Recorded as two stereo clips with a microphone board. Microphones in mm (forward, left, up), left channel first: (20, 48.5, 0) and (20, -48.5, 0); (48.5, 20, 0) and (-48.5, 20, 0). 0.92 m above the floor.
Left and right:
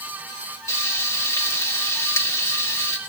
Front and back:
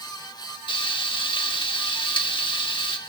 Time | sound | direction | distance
0.7 | frying | 30° left | 1.4 m